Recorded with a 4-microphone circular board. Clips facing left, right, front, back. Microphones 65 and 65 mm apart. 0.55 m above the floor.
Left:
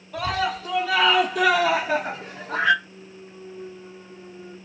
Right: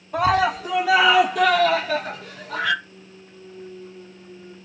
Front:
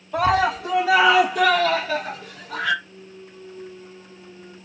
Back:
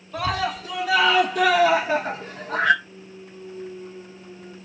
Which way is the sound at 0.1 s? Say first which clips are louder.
Right 6 dB, front 6 dB; 35° right.